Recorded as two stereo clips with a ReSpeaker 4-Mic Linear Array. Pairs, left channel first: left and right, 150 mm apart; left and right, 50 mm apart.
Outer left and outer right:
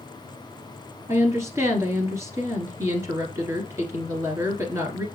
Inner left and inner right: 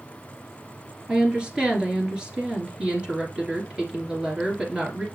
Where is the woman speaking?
20° right (ahead or behind), 1.8 m.